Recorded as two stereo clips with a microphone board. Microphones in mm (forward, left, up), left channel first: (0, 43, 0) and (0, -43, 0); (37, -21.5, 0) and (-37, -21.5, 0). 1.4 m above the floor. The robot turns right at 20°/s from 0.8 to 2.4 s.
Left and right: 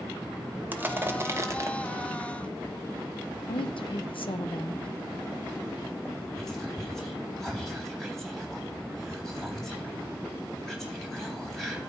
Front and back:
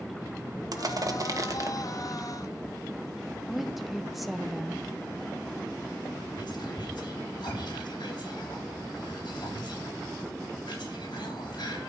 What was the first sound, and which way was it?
Crushing, 155° right.